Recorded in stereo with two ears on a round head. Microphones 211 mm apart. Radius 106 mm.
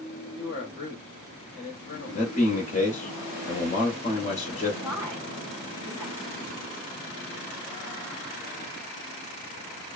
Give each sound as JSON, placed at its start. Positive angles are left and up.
{"t": 0.4, "sound": "a man speaking", "side_deg": 35, "distance_m": 1.1}
{"t": 2.1, "sound": "a man speaking", "side_deg": 30, "distance_m": 1.0}
{"t": 4.8, "sound": "a woman speaking", "side_deg": -15, "distance_m": 1.9}